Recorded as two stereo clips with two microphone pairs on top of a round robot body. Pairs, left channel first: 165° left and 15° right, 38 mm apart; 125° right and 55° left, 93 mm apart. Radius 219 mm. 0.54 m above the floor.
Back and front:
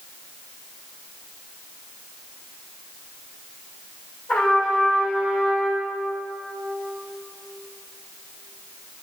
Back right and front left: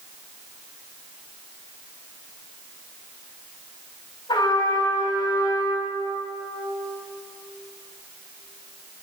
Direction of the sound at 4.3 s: 165° right.